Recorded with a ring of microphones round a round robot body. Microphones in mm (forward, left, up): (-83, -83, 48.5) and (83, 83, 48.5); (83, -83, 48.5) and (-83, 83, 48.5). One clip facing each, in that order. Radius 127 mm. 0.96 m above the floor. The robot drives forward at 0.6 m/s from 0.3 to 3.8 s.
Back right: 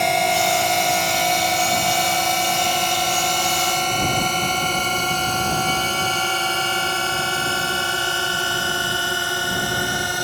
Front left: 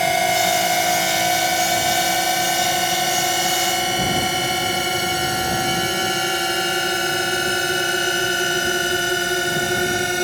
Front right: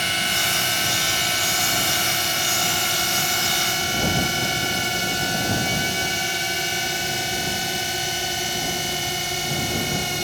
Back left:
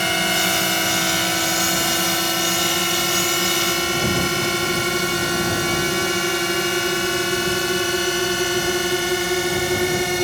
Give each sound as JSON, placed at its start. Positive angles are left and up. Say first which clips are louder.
{"t": 0.0, "sound": "a drone", "louder": "even, back left 7 dB", "azimuth_deg": 130}